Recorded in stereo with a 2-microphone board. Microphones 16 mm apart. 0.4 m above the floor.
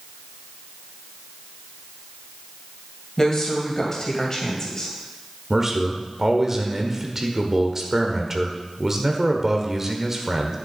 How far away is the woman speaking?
About 2.5 m.